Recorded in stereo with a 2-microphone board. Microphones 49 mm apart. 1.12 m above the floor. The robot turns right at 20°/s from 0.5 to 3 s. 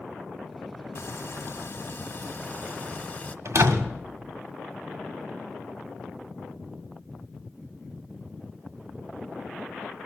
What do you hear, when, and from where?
0.9 s frying: 100° left, 1.3 m; by 3.4 s 145° left, 1.3 m
3.5 s a door slam: 85° right, 1.9 m